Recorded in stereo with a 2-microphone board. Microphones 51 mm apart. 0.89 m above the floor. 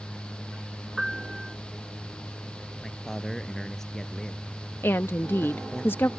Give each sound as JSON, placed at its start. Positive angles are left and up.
{"t": 1.0, "sound": "a piano", "side_deg": -5}
{"t": 2.8, "sound": "a man speaking", "side_deg": 5}
{"t": 4.8, "sound": "a woman speaking", "side_deg": 50}